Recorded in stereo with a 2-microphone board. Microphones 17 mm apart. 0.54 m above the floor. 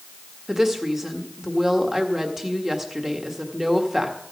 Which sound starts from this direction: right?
A woman speaking, at 0.5 s.